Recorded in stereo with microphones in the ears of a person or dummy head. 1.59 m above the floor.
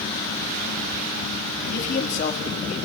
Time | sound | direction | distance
1.6 | a man speaking | 50° left (ahead or behind) | 2.5 m